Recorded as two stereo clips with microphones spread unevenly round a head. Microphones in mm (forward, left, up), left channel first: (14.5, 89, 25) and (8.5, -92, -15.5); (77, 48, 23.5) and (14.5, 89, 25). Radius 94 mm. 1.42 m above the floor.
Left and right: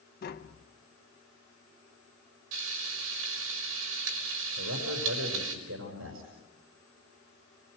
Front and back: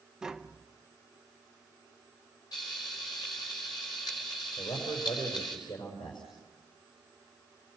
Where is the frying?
100° right, 5 m.